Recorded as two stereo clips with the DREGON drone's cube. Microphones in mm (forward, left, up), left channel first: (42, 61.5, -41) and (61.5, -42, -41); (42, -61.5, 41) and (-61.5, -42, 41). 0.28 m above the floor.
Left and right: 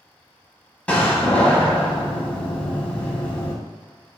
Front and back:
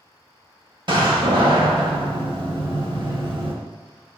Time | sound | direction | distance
0.9 | a door slam | 170° left | 0.8 m